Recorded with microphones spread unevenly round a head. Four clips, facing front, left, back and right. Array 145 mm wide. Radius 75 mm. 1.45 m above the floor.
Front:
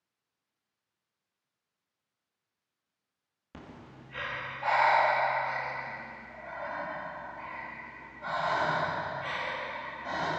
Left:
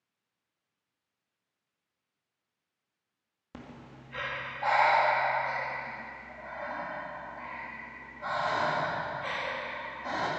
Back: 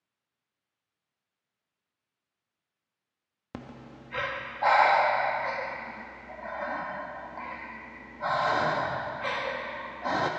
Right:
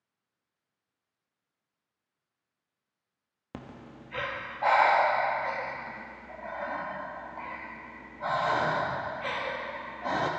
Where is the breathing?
140° right, 1.2 m.